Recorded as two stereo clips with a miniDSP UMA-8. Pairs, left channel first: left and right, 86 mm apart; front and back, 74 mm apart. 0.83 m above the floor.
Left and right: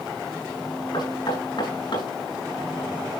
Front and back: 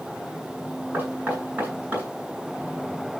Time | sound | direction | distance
0.9 | knocking | 110° left | 7.5 m